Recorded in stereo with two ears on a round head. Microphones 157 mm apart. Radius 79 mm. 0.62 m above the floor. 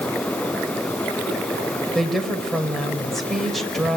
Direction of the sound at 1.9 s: Centre (ahead or behind).